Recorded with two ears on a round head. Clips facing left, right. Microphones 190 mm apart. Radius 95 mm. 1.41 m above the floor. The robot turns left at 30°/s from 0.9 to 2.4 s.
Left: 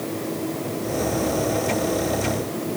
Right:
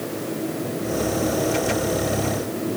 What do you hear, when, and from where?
Only background noise.